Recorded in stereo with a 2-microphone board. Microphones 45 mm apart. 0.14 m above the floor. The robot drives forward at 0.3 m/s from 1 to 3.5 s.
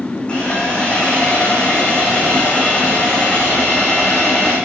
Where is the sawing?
25° left (ahead or behind), 2.5 m; by 4.6 s 20° left (ahead or behind), 3.5 m.